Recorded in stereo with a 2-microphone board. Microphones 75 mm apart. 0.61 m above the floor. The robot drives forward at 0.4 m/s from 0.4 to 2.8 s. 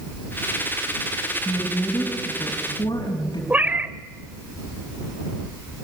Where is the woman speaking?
55° left (ahead or behind), 5 m; by 3.4 s 60° left (ahead or behind), 4.5 m.